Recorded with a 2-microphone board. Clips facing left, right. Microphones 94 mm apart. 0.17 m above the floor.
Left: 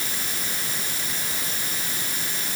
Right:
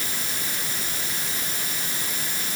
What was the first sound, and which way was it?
Only background noise.